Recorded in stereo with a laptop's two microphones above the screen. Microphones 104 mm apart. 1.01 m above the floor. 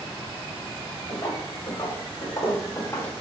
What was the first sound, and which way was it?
Footsteps, 50° left (ahead or behind).